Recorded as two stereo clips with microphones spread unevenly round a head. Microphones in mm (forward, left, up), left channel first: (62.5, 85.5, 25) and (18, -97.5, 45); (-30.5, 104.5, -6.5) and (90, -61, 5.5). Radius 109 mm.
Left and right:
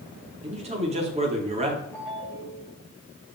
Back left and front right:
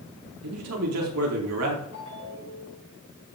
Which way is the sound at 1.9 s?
160° left.